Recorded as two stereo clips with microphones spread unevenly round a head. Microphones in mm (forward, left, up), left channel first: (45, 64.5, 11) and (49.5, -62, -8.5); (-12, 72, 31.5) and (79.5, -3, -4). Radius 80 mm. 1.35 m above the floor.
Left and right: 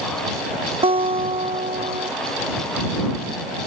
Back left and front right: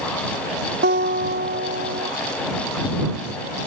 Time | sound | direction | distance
0.8 | a guitar | 45° right | ?